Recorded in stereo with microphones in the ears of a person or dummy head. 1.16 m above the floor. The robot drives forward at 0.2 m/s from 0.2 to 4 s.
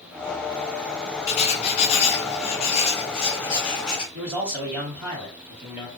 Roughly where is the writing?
Left.